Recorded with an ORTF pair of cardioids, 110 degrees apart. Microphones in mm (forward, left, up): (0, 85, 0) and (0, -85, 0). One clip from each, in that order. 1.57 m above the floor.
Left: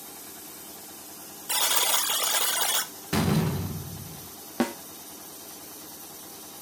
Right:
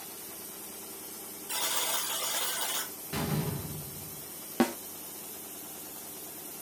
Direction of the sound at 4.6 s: Straight ahead.